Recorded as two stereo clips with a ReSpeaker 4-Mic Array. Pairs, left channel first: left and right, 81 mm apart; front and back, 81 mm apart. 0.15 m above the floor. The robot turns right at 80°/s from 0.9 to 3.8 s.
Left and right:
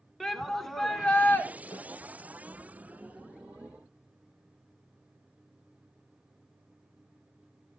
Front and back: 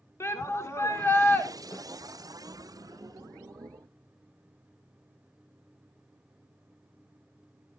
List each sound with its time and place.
0.2 s a shout: 5° left, 1.3 m; by 1.5 s 50° left, 1.3 m
1.7 s a snare drum: 50° left, 2 m; by 1.9 s 65° left, 2 m